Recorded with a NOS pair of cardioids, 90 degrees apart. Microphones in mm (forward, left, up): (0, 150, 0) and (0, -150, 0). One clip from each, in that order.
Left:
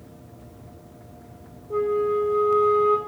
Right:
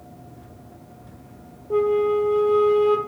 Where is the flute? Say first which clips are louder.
Right 3 dB; 35° right, 1.7 m.